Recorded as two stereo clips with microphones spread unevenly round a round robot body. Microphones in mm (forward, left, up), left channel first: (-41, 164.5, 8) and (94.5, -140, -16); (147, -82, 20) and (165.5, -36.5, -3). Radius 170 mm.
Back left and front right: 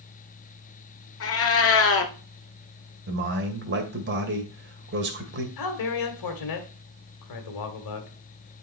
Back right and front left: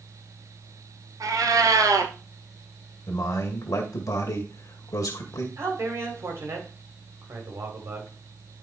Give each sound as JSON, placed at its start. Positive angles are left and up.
{"t": 1.2, "sound": "a cat meowing", "azimuth_deg": 70, "distance_m": 1.2}
{"t": 3.1, "sound": "a man speaking", "azimuth_deg": -120, "distance_m": 2.0}
{"t": 5.6, "sound": "a man speaking", "azimuth_deg": 90, "distance_m": 2.0}